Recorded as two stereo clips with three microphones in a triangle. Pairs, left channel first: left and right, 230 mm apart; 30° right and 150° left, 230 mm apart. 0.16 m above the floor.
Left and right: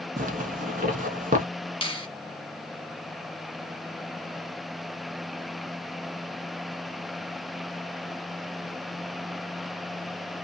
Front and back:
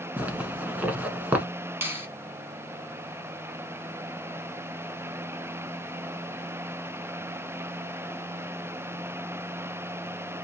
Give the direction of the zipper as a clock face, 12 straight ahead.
4 o'clock.